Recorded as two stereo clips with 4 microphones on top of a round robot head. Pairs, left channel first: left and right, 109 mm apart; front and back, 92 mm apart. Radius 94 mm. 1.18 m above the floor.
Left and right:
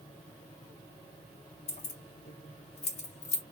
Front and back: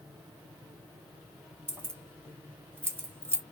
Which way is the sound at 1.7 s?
110° left.